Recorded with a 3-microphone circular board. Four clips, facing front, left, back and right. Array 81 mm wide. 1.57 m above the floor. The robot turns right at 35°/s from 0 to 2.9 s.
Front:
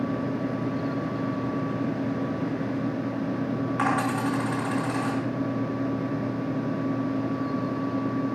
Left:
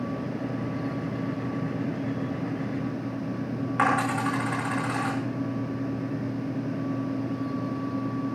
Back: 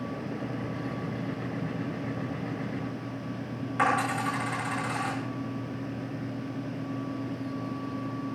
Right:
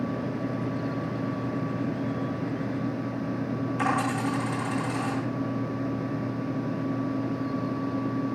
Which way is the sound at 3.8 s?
80° left.